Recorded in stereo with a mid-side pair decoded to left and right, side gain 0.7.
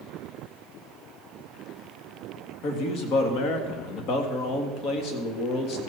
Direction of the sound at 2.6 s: 55° left.